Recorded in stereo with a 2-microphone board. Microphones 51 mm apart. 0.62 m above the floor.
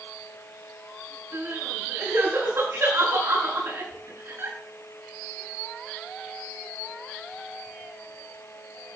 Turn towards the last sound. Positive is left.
turn(degrees=-55)  # may be behind; listen again after turning